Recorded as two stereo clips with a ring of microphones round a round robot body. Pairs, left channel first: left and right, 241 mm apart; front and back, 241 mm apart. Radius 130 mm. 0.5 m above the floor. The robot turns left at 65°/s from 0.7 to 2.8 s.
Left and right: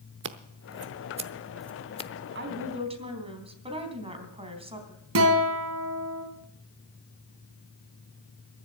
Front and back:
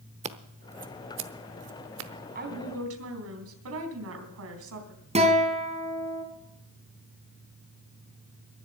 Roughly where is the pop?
No pop in this recording.